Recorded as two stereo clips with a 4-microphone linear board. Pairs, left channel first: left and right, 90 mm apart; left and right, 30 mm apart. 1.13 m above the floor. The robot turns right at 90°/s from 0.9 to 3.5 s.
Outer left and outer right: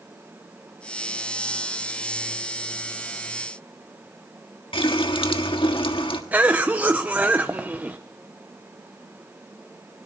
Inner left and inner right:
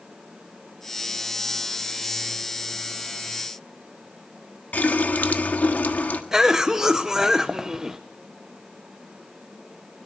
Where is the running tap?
75° left (ahead or behind), 1.4 m.